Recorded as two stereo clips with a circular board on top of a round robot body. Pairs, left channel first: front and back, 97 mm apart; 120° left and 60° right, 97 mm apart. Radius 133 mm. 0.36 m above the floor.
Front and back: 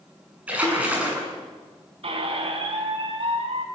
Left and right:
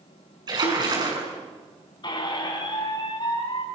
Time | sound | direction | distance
0.5 | a splash | 105° right | 6.5 m
2.0 | a squeak | 160° left | 3.5 m